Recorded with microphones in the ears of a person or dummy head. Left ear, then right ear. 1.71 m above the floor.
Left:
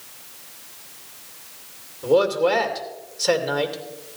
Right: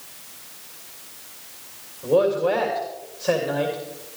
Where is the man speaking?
85° left, 2.5 m.